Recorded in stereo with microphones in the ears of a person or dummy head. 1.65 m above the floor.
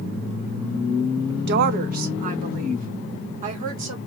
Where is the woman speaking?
55° right (ahead or behind), 0.5 m; by 4.0 s 25° right (ahead or behind), 1.7 m.